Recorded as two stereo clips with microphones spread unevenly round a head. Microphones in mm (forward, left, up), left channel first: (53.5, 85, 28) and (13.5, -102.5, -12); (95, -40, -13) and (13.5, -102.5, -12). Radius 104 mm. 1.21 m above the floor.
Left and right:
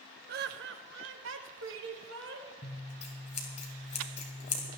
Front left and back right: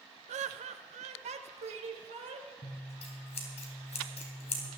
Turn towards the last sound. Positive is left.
turn(degrees=30)